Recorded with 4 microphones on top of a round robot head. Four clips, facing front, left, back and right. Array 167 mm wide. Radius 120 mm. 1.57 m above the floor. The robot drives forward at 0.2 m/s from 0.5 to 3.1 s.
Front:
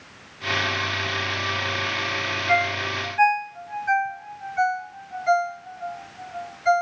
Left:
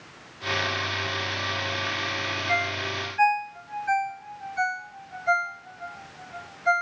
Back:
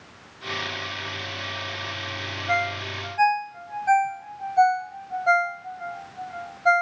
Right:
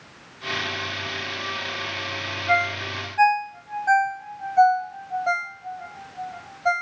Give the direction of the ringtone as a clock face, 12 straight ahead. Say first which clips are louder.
Right 7 dB, front 3 dB; 4 o'clock.